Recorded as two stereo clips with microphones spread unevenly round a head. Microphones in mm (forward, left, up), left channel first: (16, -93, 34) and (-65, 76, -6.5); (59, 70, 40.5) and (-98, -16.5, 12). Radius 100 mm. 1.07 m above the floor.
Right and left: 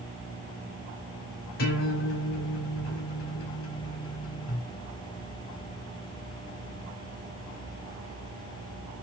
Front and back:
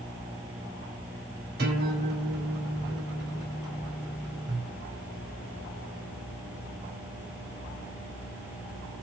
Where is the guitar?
105° right, 3.5 m.